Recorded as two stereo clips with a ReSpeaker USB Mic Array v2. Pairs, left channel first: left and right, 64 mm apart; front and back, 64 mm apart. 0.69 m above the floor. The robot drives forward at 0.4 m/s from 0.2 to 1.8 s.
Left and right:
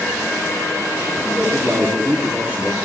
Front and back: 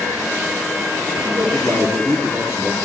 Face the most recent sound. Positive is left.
turn(degrees=-150)